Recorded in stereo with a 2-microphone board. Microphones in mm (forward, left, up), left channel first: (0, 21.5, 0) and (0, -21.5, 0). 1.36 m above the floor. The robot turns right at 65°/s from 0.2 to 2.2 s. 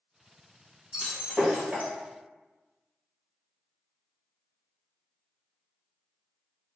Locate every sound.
0.9 s breaking glass: 10° right (ahead or behind), 1.2 m; by 1.9 s 35° right (ahead or behind), 1.2 m